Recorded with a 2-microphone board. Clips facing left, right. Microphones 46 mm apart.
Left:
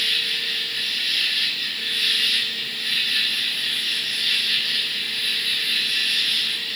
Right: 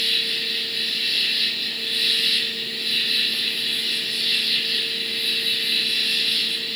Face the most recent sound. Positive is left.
turn(degrees=50)  # may be behind; listen again after turning